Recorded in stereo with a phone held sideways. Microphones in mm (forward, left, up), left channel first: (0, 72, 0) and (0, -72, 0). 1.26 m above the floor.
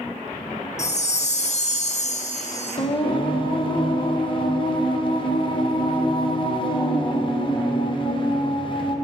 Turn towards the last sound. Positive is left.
turn(degrees=35)  # may be behind; listen again after turning